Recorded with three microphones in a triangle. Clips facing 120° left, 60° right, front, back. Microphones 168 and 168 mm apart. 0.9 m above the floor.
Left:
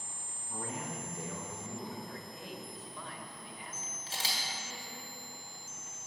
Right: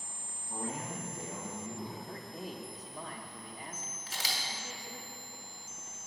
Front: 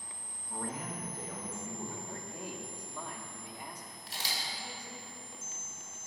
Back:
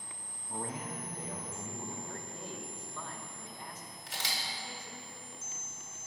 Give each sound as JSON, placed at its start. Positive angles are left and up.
{"t": 0.5, "sound": "a man speaking", "azimuth_deg": -120, "distance_m": 1.2}
{"t": 2.0, "sound": "a man speaking", "azimuth_deg": -70, "distance_m": 0.8}
{"t": 4.1, "sound": "a camera shutter", "azimuth_deg": 180, "distance_m": 1.8}